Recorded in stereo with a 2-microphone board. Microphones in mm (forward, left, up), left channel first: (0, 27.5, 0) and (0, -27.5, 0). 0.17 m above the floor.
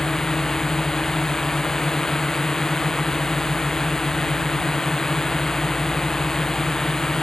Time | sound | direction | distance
0.0 | a drone | 10° left (ahead or behind) | ?